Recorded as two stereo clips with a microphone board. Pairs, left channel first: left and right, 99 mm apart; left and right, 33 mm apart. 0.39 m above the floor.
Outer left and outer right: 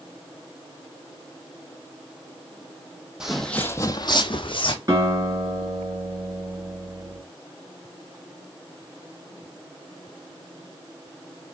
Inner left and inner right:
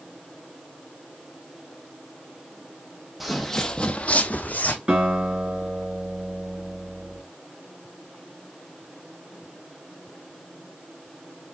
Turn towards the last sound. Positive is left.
turn(degrees=-40)  # may be behind; listen again after turning